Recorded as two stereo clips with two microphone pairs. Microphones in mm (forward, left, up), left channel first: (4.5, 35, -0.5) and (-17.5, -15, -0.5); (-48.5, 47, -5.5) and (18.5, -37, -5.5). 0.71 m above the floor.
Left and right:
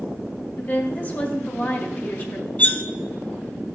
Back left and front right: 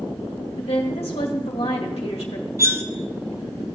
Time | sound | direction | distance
0.6 | a woman speaking | 120° left | 1.6 m
2.6 | cutlery clinking | 10° left | 0.5 m